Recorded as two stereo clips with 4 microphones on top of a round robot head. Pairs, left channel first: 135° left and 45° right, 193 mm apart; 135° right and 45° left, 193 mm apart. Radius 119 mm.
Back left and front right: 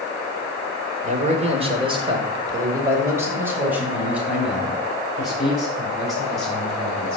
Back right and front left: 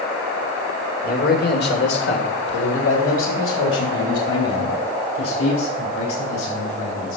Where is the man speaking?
95° right, 2 m; by 7.2 s 135° right, 7 m.